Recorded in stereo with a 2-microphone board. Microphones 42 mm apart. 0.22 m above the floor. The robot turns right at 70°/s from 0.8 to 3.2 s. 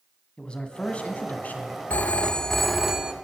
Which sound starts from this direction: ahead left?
A man speaking, at 0.4 s.